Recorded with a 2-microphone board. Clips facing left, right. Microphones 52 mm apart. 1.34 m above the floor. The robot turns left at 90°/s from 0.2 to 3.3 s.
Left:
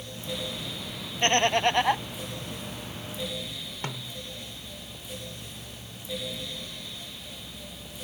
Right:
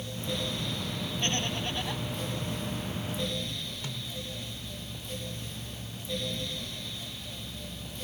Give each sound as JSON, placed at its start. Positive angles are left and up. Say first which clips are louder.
{"t": 1.2, "sound": "laughter", "louder": "left 11 dB", "azimuth_deg": 125}
{"t": 3.8, "sound": "a snare drum", "louder": "left 2 dB", "side_deg": 45}